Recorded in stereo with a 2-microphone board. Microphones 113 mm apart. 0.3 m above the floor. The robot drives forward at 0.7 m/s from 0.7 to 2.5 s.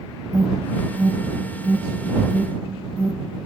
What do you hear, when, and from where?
0.3 s an alarm: 30° right (ahead or behind), 1.2 m; by 3.4 s 15° right (ahead or behind), 2 m